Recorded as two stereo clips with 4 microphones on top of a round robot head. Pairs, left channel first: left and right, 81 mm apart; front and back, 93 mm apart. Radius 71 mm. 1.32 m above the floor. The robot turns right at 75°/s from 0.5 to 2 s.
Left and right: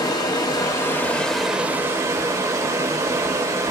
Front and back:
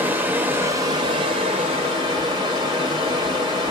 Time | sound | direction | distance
0.0 | running water | 115° left | 0.8 m